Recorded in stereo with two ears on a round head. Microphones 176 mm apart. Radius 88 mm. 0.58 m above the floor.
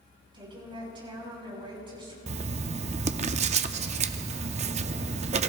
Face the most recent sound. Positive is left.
turn(degrees=-35)  # may be behind; listen again after turning